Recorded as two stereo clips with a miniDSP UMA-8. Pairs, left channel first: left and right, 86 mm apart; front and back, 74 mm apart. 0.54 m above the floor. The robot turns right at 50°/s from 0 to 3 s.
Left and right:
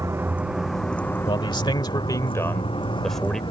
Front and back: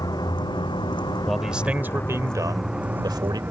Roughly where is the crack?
I don't hear a crack.